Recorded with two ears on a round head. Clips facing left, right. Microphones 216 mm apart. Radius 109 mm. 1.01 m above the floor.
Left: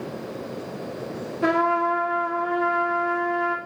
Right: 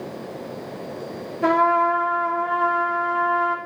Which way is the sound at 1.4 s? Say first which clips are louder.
Right 2 dB; 10° left (ahead or behind).